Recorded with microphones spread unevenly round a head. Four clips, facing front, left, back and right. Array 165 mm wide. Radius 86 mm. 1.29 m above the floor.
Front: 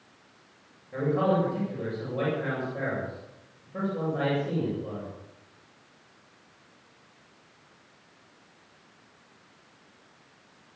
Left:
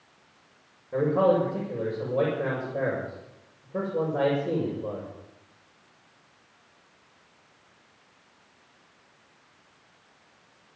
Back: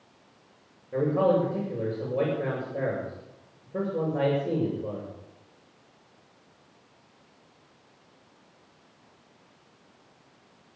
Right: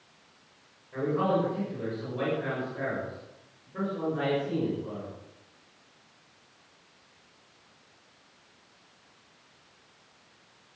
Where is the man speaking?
130° left, 6.5 m.